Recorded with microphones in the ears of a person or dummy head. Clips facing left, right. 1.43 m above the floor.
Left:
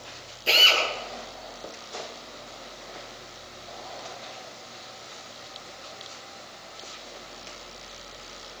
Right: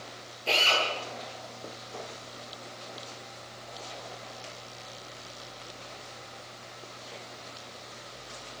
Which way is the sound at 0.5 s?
15° left (ahead or behind).